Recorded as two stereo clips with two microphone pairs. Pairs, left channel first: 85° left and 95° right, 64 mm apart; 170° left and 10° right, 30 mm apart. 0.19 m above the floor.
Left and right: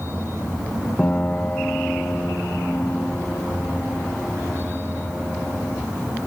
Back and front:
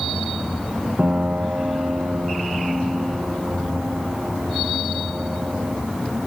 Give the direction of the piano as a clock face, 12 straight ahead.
11 o'clock.